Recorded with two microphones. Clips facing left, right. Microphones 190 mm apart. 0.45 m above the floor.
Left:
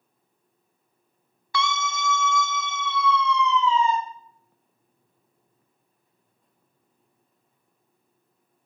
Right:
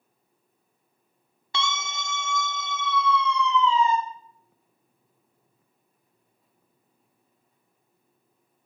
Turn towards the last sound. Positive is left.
turn(degrees=-15)  # may be behind; listen again after turning